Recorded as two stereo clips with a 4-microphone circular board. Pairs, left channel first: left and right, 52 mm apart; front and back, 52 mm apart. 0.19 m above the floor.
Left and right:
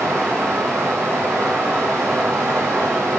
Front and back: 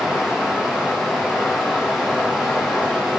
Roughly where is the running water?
Right.